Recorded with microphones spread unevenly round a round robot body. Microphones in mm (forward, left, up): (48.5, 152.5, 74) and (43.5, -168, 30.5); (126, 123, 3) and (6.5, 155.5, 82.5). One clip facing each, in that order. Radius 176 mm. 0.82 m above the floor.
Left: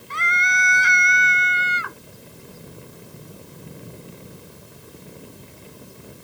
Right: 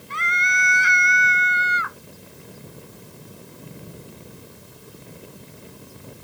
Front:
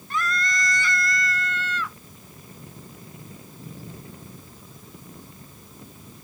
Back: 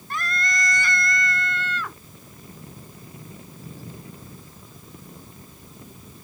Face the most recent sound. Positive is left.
turn(degrees=145)